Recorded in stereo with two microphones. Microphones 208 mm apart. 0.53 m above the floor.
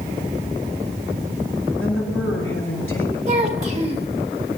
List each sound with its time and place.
1.8 s a woman speaking: 75° left (ahead or behind), 8 m
3.3 s a child speaking: 35° right (ahead or behind), 1.6 m